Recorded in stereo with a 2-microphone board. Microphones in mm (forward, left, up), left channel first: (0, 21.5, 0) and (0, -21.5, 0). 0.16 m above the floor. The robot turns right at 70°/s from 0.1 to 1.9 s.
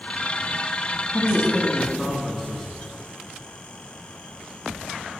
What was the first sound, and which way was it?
A man speaking, 5° right (ahead or behind).